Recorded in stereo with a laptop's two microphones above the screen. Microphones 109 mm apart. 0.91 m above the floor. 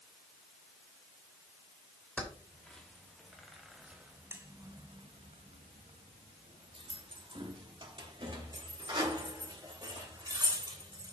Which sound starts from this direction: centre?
Keys jangling, at 2.2 s.